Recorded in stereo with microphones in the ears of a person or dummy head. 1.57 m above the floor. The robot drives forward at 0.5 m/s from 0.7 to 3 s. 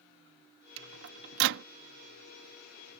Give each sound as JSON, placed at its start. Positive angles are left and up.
{"t": 0.8, "sound": "a microwave", "side_deg": -70}